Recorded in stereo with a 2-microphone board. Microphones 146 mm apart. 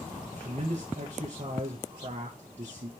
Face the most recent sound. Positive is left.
turn(degrees=-55)  # may be behind; listen again after turning